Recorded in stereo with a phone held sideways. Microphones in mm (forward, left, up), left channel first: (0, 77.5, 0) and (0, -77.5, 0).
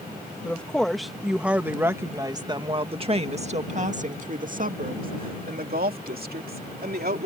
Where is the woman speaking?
10° left (ahead or behind); by 7.3 s 80° right.